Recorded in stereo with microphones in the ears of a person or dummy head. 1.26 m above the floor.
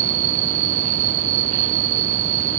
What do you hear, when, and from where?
0.0 s an insect: 45° right (ahead or behind)